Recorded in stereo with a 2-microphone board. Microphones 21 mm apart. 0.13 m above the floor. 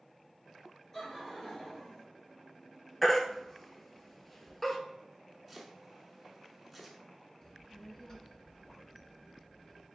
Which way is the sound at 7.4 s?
20° left (ahead or behind).